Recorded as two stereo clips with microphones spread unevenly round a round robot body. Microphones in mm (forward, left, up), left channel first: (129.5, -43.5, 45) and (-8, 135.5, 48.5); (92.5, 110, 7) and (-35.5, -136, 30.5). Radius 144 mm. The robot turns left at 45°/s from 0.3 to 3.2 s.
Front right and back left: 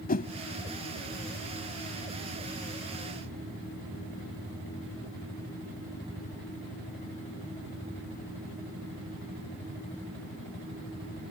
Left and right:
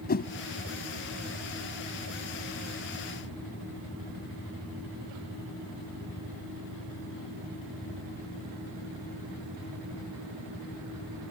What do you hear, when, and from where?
0.1 s a whoosh: straight ahead